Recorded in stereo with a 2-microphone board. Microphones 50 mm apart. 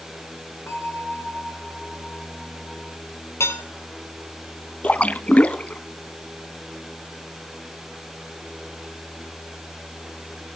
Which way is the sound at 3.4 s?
65° left (ahead or behind).